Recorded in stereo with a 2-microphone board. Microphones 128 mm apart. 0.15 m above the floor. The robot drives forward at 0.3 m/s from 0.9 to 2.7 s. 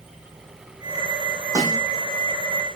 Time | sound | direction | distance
1.6 | a snare drum | 25° right (ahead or behind) | 2.5 m